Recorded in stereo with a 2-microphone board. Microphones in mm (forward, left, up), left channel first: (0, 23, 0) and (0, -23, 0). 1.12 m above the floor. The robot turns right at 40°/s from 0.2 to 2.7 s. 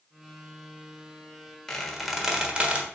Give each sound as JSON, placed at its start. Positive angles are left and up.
{"t": 1.7, "sound": "a squeak", "side_deg": 10, "distance_m": 1.2}